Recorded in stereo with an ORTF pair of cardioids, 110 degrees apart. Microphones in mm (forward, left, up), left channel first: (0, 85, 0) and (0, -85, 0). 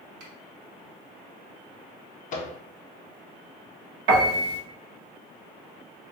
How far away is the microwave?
About 0.6 m.